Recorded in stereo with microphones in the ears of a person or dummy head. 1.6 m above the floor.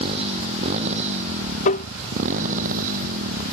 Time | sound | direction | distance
0.0 | a motorcycle | 35° right (ahead or behind) | ?
1.6 | tapping | 45° left (ahead or behind) | ?